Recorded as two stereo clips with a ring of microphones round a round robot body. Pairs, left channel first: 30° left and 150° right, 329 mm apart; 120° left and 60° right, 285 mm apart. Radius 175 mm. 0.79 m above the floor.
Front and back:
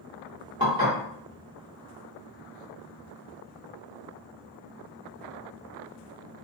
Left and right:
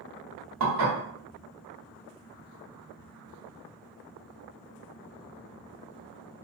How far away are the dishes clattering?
About 1.2 m.